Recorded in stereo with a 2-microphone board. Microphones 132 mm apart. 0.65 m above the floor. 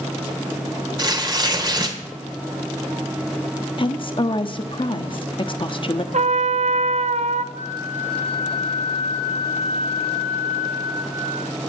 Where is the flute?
80° right, 5.5 m.